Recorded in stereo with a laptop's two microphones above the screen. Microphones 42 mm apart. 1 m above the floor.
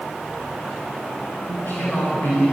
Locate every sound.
1.5 s a man speaking: 50° left (ahead or behind), 4 m; by 2.5 s 65° left (ahead or behind), 3.5 m